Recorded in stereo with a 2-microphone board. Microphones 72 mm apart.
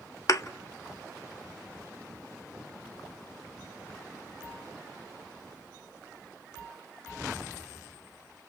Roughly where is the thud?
Left.